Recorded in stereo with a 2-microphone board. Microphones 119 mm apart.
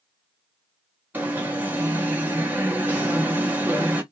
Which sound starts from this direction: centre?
An alarm, at 1.1 s.